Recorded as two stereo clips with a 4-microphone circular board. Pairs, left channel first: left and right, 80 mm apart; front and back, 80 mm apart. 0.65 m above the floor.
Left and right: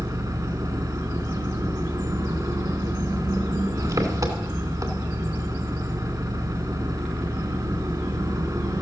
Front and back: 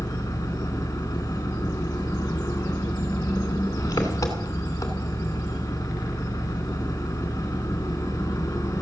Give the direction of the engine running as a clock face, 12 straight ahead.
2 o'clock.